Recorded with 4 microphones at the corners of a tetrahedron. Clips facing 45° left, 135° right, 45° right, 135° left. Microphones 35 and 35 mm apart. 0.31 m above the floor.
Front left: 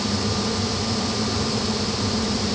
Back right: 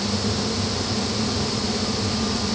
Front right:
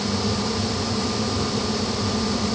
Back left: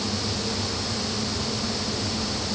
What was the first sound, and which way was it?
Only background noise.